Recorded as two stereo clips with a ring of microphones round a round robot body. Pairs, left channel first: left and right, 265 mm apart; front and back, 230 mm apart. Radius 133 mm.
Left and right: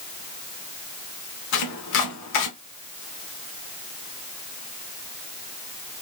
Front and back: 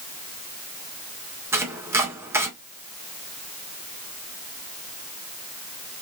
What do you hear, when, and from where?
1.5 s chopping: 100° left, 1.6 m